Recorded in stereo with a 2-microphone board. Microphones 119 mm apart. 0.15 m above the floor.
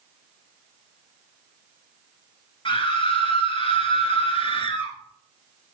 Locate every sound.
2.6 s a scream: 45° left (ahead or behind), 2.5 m